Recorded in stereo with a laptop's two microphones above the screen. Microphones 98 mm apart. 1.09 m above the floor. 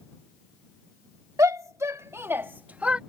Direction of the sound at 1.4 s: 35° right (ahead or behind).